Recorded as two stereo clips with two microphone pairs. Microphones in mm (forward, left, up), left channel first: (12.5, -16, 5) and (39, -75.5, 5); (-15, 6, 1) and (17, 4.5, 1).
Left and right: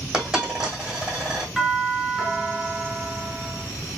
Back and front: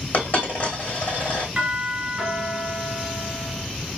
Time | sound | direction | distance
0.1 | a dropped coin | 145° right | 2.5 m
1.6 | a doorbell | 20° left | 1.6 m